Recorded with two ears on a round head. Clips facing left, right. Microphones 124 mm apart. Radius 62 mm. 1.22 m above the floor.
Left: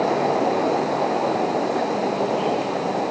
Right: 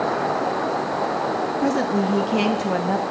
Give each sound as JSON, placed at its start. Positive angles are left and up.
{"t": 1.6, "sound": "a woman speaking", "side_deg": -80, "distance_m": 1.8}